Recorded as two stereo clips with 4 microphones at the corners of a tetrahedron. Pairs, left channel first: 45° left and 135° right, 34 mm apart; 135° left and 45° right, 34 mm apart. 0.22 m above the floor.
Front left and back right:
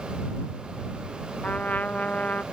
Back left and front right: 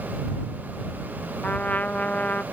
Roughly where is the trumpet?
Left.